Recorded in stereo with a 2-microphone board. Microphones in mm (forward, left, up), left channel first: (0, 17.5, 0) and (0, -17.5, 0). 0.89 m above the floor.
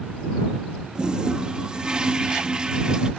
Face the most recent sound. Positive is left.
turn(degrees=-25)  # may be behind; listen again after turning